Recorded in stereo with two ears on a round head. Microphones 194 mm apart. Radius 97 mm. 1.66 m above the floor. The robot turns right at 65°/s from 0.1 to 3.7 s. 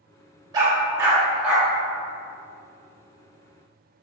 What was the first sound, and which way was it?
A dog barking, 20° right (ahead or behind).